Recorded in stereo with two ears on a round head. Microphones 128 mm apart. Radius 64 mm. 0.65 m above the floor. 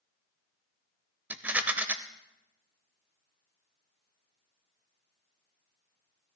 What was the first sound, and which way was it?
A rattle, 15° right (ahead or behind).